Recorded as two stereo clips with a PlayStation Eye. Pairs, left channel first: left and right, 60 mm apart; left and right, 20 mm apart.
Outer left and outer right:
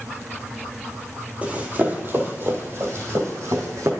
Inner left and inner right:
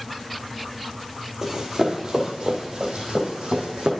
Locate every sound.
1.4 s running footsteps: 20° right (ahead or behind), 1.6 m; by 3.9 s 60° right (ahead or behind), 2.5 m